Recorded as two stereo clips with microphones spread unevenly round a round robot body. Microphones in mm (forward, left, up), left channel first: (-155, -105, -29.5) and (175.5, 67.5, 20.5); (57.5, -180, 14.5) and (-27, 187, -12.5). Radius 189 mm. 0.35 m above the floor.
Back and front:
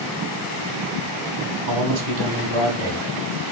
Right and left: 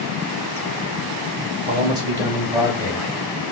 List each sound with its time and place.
1.7 s a man speaking: 40° left, 1.1 m; by 3.5 s 10° left, 2.5 m